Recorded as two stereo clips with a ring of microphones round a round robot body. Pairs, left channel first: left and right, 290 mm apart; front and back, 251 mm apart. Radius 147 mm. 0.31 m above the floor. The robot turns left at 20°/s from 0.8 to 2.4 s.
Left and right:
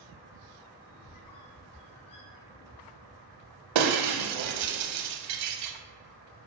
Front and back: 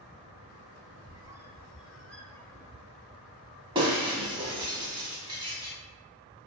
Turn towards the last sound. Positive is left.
turn(degrees=-105)